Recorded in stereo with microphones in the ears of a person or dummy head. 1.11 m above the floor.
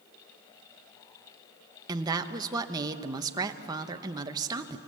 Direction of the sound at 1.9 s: 25° right (ahead or behind).